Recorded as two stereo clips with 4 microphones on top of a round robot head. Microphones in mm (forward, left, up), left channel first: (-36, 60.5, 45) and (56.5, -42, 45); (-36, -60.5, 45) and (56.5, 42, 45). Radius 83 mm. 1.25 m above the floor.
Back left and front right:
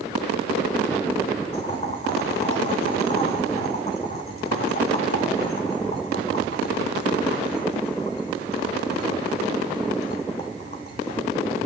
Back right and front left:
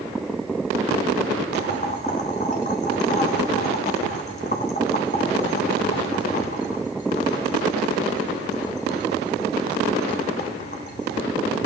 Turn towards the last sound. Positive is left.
turn(degrees=-175)